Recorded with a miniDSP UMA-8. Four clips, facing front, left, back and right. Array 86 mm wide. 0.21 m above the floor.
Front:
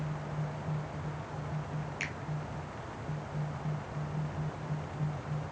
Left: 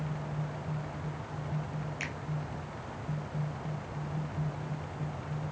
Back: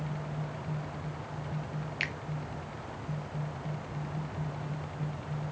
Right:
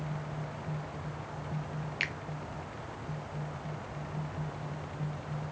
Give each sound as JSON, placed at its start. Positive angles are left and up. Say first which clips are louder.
{"t": 2.0, "sound": "a finger snap", "louder": "right 2 dB, back 3 dB", "azimuth_deg": -130, "distance_m": 0.9}